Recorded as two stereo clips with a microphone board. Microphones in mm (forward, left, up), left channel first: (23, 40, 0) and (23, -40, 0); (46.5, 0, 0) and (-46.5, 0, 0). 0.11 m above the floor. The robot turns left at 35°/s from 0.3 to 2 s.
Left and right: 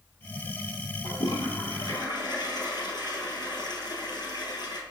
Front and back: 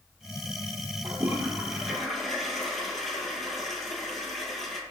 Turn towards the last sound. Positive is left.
turn(degrees=90)